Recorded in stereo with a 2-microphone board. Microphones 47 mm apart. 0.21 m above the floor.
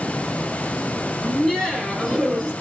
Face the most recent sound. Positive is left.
turn(degrees=0)  # may be behind; listen again after turning